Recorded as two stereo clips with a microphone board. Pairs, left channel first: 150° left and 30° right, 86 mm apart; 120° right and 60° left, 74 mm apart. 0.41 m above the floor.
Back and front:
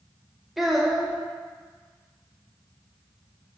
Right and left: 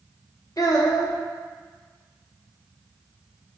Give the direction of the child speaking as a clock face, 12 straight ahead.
4 o'clock.